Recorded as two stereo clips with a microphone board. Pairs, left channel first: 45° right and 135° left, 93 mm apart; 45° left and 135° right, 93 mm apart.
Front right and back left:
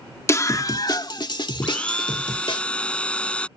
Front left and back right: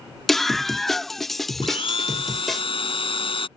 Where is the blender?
35° left.